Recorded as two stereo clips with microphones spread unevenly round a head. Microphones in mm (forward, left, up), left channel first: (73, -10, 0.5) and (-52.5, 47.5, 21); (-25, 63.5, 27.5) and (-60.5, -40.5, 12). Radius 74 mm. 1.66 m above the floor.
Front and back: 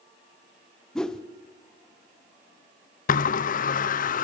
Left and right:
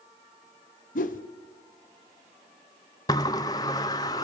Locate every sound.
0.9 s a whoosh: 60° left, 1.2 m
3.1 s a sliding door: 5° left, 0.8 m